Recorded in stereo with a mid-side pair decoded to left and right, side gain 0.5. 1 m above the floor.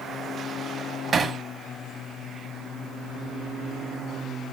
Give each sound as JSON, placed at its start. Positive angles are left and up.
{"t": 1.1, "sound": "hammering", "azimuth_deg": -50, "distance_m": 1.3}